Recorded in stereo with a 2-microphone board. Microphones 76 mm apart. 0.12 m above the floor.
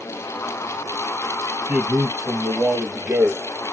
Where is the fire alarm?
I don't hear a fire alarm.